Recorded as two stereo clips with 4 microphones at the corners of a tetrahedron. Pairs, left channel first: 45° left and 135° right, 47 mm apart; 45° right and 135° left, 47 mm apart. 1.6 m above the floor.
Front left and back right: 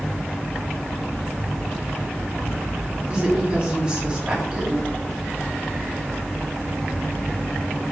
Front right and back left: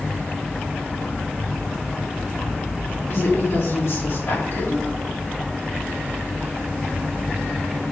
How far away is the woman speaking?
About 4.5 m.